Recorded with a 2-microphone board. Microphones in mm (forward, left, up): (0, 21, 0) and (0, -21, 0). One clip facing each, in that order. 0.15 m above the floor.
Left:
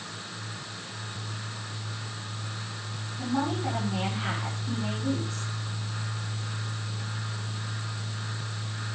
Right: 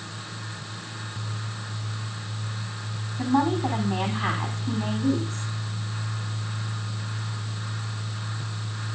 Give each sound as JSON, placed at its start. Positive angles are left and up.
{"t": 3.2, "sound": "a woman speaking", "side_deg": -35, "distance_m": 8.5}